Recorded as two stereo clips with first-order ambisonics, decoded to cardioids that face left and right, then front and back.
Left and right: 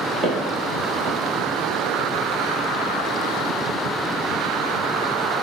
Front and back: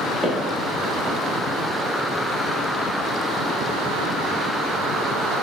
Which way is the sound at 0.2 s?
85° right.